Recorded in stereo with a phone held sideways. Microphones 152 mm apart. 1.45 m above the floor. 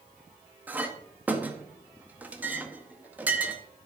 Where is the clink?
10° right (ahead or behind), 1.0 m.